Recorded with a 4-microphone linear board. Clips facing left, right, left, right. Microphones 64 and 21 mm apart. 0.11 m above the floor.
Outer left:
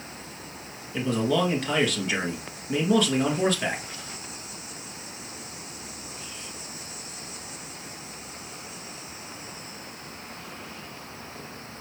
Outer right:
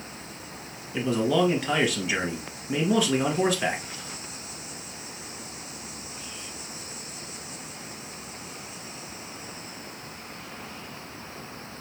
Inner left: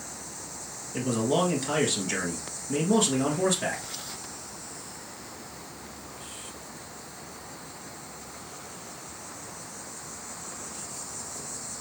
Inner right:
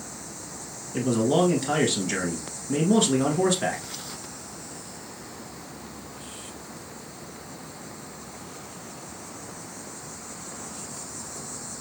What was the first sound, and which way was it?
A man speaking, 5° right (ahead or behind).